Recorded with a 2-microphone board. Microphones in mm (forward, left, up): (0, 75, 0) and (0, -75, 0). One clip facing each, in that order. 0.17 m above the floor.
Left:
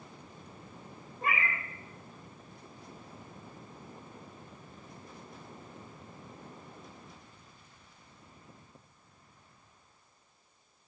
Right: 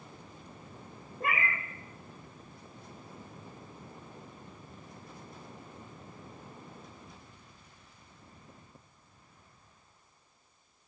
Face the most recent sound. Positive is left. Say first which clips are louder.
# right 1 dB
turn(degrees=-55)  # may be behind; listen again after turning